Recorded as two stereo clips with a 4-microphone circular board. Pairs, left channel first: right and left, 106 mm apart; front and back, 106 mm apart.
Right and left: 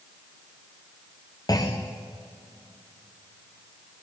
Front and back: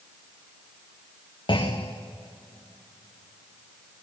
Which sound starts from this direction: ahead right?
A clunk, at 1.5 s.